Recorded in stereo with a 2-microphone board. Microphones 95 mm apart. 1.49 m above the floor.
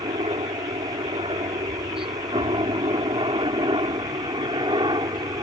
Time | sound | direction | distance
0.0 | a helicopter | 70° right (ahead or behind) | ?